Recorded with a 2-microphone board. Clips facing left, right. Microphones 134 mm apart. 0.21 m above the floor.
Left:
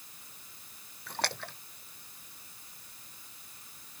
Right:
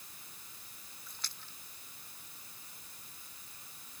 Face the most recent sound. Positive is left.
turn(degrees=70)  # may be behind; listen again after turning